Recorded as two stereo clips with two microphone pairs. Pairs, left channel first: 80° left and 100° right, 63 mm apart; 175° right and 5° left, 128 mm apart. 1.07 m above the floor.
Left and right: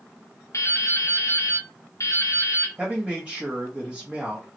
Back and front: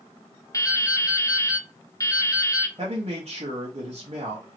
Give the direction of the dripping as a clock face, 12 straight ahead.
8 o'clock.